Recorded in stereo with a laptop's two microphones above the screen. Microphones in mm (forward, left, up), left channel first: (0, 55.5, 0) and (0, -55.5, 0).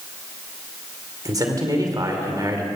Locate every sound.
1.2 s a man speaking: 35° right (ahead or behind), 2.5 m